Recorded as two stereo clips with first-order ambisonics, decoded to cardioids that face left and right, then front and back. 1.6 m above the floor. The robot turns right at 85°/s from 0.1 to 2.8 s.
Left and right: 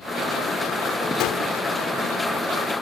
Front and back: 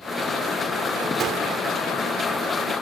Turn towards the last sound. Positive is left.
turn(degrees=-100)